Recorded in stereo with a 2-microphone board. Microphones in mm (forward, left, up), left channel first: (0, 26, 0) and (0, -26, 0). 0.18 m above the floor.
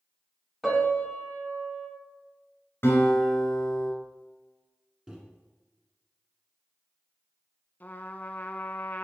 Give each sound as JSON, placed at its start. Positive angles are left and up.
{"t": 0.6, "sound": "a piano", "side_deg": -5, "distance_m": 1.8}
{"t": 2.8, "sound": "a guitar", "side_deg": 50, "distance_m": 2.5}
{"t": 5.1, "sound": "a microwave", "side_deg": -10, "distance_m": 1.2}
{"t": 7.8, "sound": "a trumpet", "side_deg": 35, "distance_m": 0.5}